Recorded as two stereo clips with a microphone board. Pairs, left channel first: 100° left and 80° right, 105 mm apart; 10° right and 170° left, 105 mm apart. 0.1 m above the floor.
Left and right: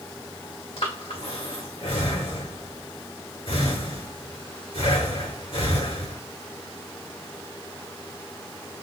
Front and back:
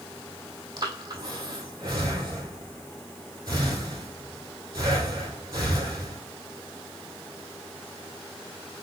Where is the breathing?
125° left, 1.5 m.